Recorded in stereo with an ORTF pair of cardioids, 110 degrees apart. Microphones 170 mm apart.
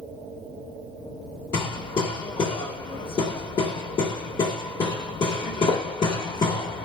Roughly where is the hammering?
Ahead left.